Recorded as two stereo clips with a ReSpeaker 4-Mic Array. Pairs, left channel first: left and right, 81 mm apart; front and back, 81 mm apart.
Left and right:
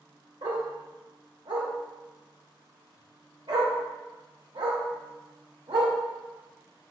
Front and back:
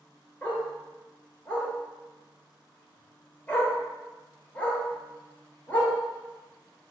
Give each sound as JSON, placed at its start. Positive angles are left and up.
{"t": 0.4, "sound": "a dog barking", "azimuth_deg": -75, "distance_m": 1.1}